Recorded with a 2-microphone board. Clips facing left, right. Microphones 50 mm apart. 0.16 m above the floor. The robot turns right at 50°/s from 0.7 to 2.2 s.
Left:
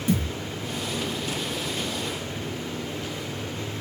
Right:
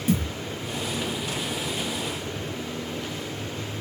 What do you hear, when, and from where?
0.1 s a thud: 10° right (ahead or behind), 1.4 m